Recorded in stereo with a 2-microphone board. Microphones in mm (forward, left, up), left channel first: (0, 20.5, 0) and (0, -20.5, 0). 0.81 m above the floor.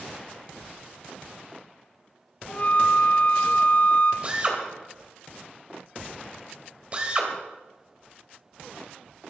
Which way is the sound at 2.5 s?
40° left (ahead or behind).